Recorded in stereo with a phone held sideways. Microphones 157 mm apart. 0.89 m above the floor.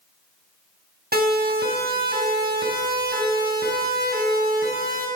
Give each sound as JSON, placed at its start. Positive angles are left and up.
{"t": 1.1, "sound": "a siren", "side_deg": -80, "distance_m": 7.0}